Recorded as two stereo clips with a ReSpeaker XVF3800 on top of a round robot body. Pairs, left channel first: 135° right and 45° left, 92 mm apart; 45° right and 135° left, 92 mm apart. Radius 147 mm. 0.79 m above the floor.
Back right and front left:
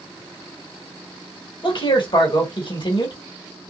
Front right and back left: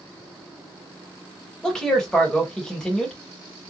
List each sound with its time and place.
1.6 s a man speaking: 125° right, 1.5 m